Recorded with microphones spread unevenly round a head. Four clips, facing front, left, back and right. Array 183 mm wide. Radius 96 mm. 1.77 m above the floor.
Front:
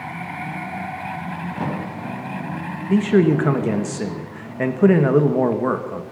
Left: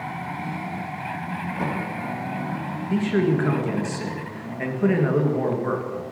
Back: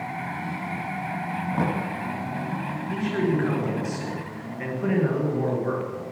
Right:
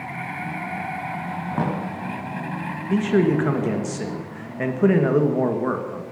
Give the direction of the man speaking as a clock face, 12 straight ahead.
1 o'clock.